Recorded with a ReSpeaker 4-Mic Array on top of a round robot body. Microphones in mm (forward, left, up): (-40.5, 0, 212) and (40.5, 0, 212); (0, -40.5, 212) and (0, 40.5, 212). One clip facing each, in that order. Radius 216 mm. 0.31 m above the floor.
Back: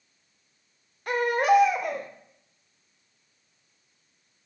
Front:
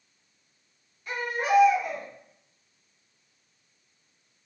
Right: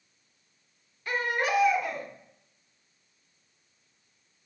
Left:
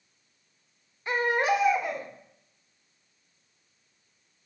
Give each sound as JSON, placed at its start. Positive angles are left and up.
{"t": 1.1, "sound": "a baby crying", "azimuth_deg": 155, "distance_m": 0.8}